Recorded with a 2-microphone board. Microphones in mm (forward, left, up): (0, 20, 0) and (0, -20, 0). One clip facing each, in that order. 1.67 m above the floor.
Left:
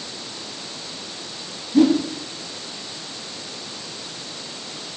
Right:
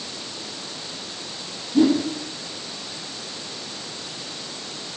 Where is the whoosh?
70° left (ahead or behind), 3 m.